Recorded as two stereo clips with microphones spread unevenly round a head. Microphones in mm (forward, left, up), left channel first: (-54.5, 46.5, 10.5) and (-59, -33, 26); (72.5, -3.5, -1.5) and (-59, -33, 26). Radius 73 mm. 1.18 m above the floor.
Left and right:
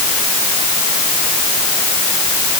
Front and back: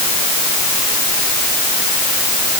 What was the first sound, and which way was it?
Only background noise.